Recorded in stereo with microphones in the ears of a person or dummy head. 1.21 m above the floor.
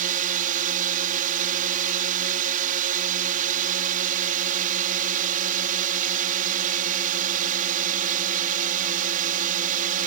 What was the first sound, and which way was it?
A drone, 50° right (ahead or behind).